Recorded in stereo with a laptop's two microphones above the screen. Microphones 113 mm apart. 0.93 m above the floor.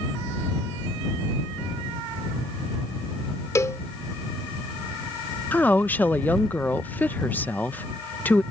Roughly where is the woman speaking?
Centre.